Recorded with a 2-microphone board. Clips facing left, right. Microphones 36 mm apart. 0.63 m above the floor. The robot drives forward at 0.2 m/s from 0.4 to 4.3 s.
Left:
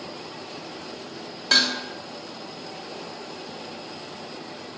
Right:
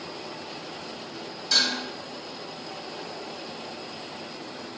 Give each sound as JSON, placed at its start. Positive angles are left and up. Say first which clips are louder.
{"t": 1.5, "sound": "dishes clattering", "louder": "left 3 dB", "side_deg": 55, "distance_m": 0.6}